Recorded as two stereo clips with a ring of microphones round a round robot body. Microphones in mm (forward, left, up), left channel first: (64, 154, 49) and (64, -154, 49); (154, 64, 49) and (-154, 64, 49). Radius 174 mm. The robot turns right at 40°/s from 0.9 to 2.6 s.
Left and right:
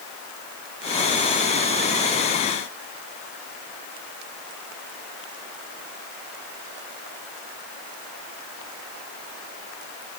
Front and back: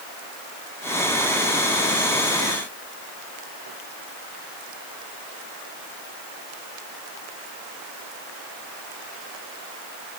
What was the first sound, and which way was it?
Only background noise.